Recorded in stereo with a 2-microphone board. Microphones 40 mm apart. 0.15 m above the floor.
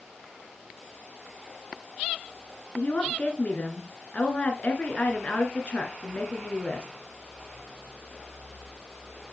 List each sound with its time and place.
2.8 s a woman speaking: 40° left (ahead or behind), 1.8 m